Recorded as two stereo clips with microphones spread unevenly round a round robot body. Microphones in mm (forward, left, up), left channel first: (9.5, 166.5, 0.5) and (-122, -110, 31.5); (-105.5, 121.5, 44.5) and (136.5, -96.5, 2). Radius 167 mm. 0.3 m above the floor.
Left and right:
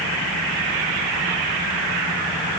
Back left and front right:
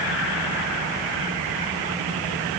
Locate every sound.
Only background noise.